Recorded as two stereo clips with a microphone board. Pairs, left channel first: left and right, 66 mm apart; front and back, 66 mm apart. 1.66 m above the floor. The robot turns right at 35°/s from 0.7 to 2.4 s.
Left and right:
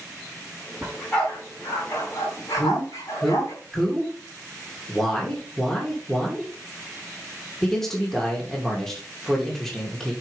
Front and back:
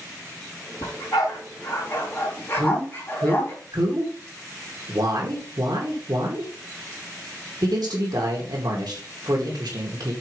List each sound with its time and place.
0.8 s a dog barking: 5° left, 4 m; by 3.5 s 60° left, 4 m
2.5 s a man speaking: 175° left, 2.5 m